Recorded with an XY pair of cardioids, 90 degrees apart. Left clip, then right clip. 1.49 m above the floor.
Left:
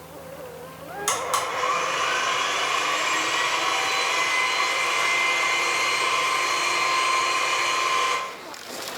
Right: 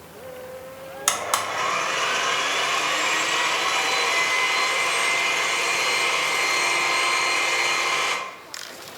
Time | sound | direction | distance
1.1 | a blender | 55° right | 0.7 m